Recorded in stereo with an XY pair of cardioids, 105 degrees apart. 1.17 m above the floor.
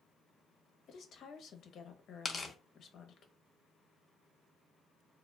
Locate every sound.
0.9 s a woman speaking: 60° left, 0.7 m
2.2 s tearing paper: 25° left, 0.5 m